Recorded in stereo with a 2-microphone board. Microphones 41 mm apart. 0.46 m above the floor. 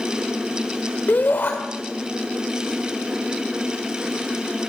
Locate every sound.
1.1 s a shout: 50° left (ahead or behind), 1.6 m